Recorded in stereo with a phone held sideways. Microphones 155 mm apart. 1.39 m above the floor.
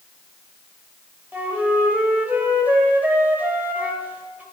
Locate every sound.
1.3 s a flute: 10° right (ahead or behind), 1.5 m